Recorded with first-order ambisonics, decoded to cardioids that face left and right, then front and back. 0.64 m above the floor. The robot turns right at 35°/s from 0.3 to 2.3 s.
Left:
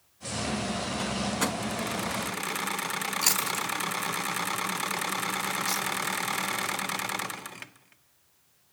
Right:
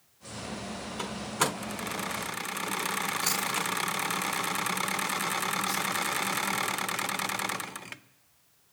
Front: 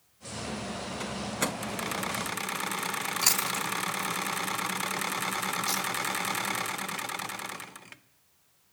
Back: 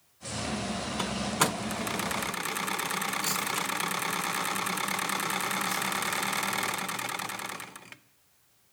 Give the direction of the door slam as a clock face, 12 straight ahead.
6 o'clock.